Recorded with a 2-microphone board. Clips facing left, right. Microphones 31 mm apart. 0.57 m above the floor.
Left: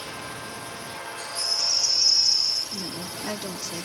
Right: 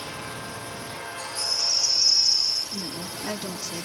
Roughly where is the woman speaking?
Centre.